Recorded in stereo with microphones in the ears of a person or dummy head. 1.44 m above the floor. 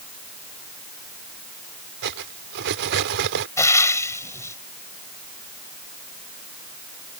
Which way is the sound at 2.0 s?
60° right (ahead or behind).